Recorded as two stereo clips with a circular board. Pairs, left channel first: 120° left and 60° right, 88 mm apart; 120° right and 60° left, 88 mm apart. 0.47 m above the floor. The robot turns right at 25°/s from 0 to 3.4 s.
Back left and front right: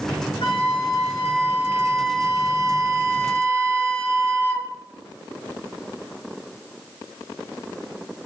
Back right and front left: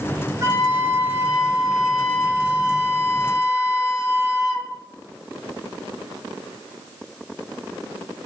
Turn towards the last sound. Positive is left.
turn(degrees=-170)